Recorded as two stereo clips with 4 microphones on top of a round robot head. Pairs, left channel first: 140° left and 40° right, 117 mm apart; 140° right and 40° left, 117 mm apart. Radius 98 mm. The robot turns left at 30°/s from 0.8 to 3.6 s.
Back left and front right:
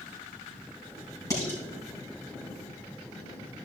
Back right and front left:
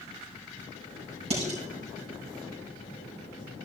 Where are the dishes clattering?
75° left, 4.5 m; by 1.6 s 70° left, 4.5 m.